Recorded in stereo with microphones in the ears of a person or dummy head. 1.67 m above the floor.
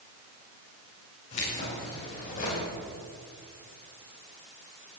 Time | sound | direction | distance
1.3 | keys jangling | 45° left (ahead or behind) | 7 m